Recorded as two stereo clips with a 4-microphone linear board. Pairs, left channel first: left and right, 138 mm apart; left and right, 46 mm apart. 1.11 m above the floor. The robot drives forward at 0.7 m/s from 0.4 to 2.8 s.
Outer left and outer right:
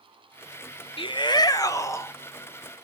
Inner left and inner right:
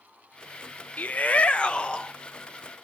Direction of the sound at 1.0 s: 40° left (ahead or behind).